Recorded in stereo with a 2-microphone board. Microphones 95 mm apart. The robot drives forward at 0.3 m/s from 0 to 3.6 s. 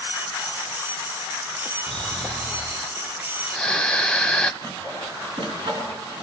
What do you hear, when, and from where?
1.9 s snoring: 5° left (ahead or behind), 0.9 m; by 4.5 s 10° left (ahead or behind), 0.5 m
4.6 s sawing: 55° right (ahead or behind), 3.5 m